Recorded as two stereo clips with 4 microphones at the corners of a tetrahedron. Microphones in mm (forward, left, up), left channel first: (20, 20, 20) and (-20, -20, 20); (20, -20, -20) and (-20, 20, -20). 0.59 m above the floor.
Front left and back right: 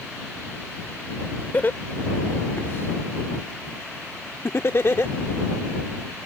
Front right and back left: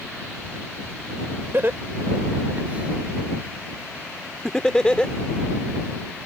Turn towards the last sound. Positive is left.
turn(degrees=20)